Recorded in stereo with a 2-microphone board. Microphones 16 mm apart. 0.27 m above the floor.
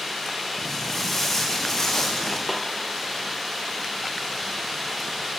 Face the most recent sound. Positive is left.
turn(degrees=-5)  # may be behind; listen again after turning